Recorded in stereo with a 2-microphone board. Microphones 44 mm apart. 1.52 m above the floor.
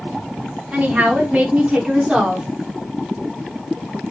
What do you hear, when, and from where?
0.7 s a woman speaking: 35° right (ahead or behind), 3 m; by 2.5 s 15° right (ahead or behind), 3.5 m